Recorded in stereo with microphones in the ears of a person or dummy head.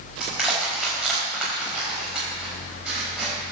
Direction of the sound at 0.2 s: 5° right (ahead or behind).